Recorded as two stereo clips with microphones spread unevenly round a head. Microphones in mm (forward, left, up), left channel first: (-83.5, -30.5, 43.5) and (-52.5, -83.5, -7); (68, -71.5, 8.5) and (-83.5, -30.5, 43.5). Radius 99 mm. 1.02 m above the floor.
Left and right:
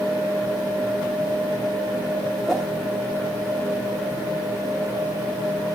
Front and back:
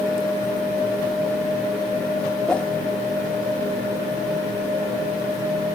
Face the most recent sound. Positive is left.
turn(degrees=80)